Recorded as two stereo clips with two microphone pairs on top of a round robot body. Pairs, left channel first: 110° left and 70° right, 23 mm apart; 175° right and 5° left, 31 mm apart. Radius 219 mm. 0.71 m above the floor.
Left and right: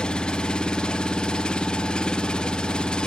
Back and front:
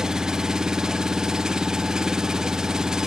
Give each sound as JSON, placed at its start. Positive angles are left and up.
{"t": 0.0, "sound": "an engine running", "azimuth_deg": 75, "distance_m": 0.9}